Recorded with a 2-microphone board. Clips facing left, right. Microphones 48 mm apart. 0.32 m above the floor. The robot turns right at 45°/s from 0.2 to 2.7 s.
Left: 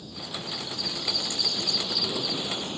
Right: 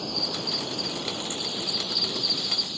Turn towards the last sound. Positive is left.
turn(degrees=35)